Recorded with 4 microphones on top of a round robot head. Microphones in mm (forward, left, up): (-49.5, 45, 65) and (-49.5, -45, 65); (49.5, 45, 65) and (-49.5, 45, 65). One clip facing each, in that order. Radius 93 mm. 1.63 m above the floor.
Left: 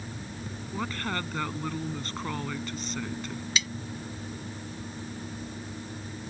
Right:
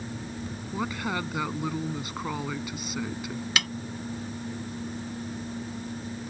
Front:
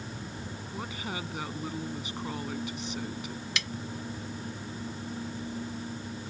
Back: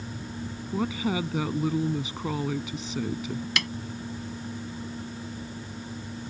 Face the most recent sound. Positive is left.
turn(degrees=-125)